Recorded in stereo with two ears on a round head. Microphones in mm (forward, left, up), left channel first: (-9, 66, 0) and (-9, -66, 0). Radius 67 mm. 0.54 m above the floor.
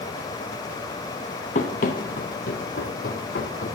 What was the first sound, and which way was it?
Running footsteps, 55° left (ahead or behind).